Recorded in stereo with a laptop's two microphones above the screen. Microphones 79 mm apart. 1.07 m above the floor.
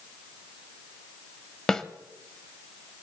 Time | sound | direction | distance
1.7 | a snare drum | 10° left (ahead or behind) | 1.1 m